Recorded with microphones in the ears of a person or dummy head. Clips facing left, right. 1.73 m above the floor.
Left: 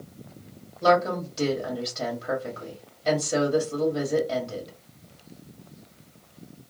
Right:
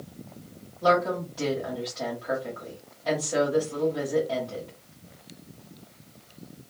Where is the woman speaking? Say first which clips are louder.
Left 2 dB; 35° left (ahead or behind), 1.6 m.